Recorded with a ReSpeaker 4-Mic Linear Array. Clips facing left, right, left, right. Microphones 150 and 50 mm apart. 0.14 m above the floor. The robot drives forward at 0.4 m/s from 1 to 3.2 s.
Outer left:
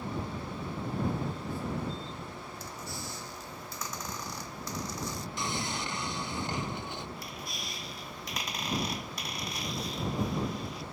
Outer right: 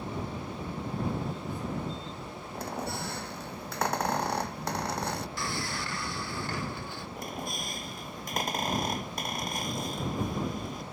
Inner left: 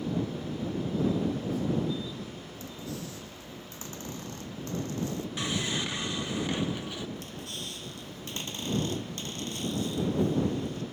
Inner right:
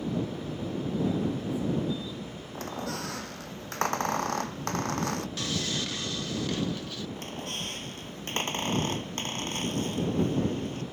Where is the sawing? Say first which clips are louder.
Even, inner left 1 dB; 20° left (ahead or behind).